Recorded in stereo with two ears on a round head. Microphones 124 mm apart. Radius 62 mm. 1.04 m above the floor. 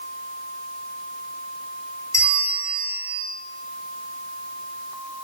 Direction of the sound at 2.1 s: 25° left (ahead or behind).